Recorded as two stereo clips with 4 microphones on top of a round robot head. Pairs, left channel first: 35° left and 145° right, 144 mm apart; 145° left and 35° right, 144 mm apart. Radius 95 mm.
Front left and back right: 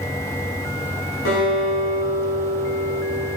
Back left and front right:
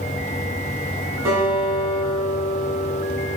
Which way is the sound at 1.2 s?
35° left.